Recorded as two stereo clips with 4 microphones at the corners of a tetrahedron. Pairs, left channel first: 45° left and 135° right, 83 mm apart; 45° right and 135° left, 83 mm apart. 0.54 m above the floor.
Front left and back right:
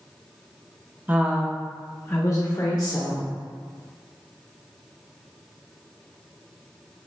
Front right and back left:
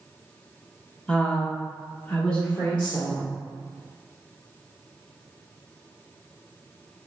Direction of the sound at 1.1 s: 100° right.